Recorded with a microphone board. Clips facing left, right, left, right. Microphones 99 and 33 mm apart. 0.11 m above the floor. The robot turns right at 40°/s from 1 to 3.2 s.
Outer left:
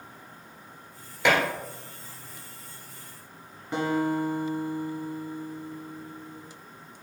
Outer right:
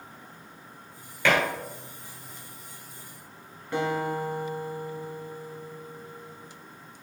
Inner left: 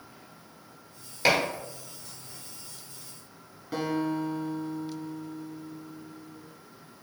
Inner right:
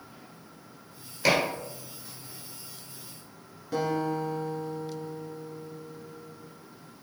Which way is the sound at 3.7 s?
15° left (ahead or behind).